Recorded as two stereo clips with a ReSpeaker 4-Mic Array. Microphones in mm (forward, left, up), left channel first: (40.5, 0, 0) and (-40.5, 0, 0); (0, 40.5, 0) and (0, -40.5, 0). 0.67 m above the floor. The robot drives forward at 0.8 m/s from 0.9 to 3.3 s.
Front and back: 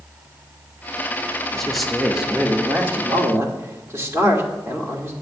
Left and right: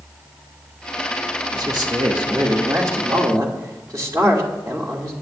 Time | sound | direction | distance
1.5 | a man speaking | 85° right | 1.8 m